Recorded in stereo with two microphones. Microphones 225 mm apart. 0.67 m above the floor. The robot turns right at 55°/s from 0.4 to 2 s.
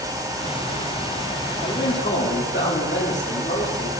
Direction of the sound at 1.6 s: 40° left (ahead or behind).